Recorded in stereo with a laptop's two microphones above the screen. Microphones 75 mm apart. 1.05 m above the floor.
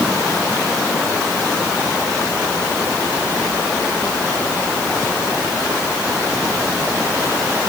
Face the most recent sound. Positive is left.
No sound to turn to.